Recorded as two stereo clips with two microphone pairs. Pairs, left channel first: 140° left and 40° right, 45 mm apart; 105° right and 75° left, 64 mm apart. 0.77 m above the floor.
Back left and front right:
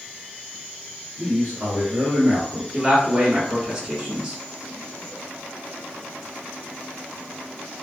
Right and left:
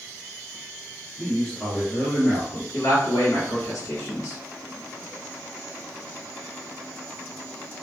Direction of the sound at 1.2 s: 5° right.